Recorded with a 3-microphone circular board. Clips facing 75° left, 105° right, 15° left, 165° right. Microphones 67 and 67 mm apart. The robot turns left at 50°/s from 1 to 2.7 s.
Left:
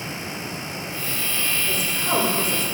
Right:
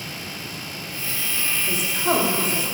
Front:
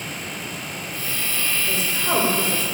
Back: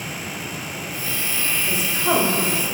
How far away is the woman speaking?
About 5 m.